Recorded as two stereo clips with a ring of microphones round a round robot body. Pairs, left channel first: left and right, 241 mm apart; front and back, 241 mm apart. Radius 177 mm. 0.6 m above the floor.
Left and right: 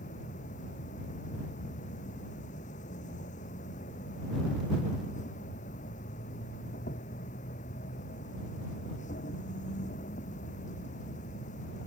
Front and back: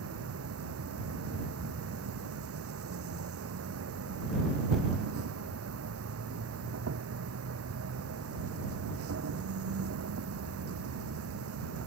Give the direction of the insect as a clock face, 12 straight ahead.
7 o'clock.